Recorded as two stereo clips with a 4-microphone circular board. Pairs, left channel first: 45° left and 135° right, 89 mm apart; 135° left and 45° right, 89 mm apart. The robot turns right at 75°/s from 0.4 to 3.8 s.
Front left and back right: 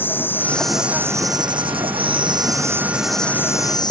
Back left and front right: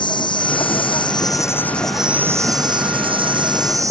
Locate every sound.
0.0 s an insect: 110° left; by 3.9 s 5° left